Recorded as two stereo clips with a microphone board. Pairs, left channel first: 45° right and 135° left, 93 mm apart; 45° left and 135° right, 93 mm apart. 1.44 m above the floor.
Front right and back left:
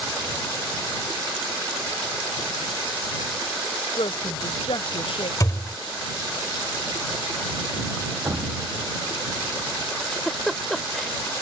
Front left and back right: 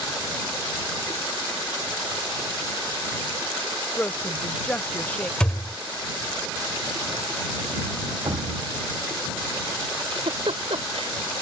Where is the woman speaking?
30° right.